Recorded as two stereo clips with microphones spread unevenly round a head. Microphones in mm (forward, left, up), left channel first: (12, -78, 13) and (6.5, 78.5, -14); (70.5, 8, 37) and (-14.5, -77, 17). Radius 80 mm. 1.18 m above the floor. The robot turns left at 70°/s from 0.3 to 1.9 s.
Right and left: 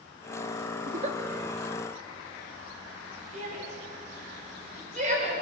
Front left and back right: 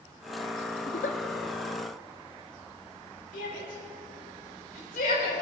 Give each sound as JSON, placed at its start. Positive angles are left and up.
{"t": 0.9, "sound": "a giggle", "azimuth_deg": 55, "distance_m": 1.0}
{"t": 3.3, "sound": "a shout", "azimuth_deg": 45, "distance_m": 4.5}